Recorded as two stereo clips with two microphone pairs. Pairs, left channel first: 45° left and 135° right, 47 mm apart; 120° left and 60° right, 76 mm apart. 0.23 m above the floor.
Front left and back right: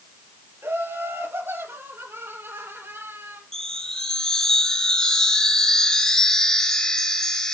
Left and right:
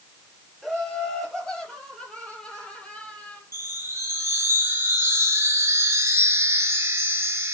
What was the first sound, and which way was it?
Laughter, 155° right.